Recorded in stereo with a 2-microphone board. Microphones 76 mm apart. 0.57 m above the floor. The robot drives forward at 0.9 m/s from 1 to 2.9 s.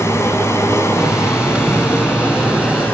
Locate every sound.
0.0 s running water: 35° left (ahead or behind), 3 m; by 2.9 s 25° left (ahead or behind), 4.5 m